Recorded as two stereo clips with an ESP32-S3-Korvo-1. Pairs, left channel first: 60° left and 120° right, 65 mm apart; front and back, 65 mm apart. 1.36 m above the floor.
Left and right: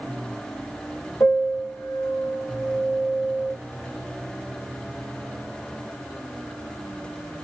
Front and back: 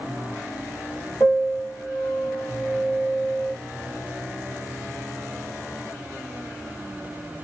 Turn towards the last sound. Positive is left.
turn(degrees=60)